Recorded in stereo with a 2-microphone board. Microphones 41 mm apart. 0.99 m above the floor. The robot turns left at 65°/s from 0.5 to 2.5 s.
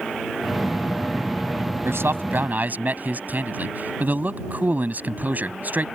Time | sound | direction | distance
1.9 | a man speaking | 95° right | ?